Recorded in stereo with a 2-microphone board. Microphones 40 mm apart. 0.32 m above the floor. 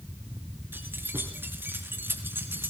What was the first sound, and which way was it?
Keys jangling, 65° right (ahead or behind).